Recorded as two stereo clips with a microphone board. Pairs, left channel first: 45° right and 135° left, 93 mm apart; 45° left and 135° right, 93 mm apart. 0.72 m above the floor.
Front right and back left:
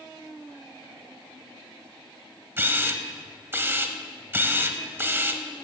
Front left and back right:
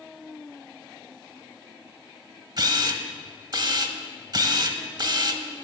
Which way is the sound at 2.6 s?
165° right.